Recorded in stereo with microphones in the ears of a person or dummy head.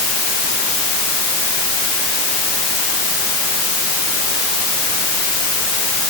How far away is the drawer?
No drawer in this recording.